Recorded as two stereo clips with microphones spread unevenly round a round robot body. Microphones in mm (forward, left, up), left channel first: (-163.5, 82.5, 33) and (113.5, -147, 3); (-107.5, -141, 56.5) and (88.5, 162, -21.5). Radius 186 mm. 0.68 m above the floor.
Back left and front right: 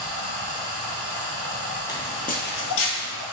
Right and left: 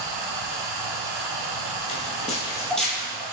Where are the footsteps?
150° right, 0.9 m; by 3.2 s 140° left, 0.9 m.